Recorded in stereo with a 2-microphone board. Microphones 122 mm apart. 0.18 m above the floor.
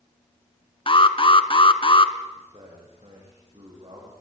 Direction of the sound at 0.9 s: 45° left (ahead or behind).